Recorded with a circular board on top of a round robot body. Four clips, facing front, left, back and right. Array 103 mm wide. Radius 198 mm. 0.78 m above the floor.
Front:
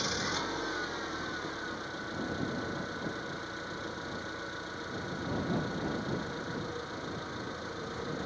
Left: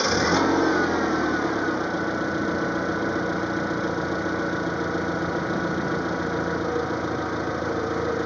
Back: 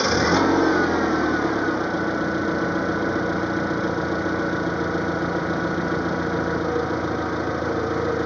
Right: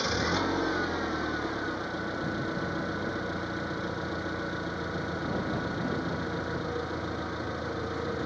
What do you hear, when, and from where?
0.0 s an engine running: 150° left